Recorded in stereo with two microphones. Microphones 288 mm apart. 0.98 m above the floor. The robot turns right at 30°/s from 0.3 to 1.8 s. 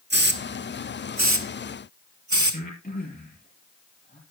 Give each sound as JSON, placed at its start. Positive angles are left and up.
{"t": 0.1, "sound": "a hiss", "side_deg": -35, "distance_m": 1.2}
{"t": 2.5, "sound": "breathing", "side_deg": 30, "distance_m": 6.0}